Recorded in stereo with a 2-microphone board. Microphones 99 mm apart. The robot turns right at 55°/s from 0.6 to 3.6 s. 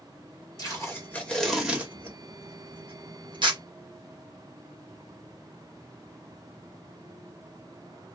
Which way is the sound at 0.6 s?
40° left (ahead or behind).